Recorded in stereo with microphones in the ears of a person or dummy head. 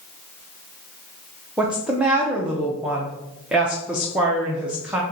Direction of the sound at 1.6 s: 5° right (ahead or behind).